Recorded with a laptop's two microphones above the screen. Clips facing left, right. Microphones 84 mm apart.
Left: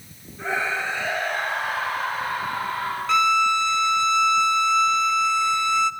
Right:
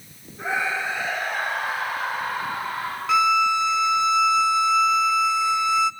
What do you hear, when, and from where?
0.4 s a scream: 5° right (ahead or behind), 6.5 m
3.1 s a violin: 5° right (ahead or behind), 0.6 m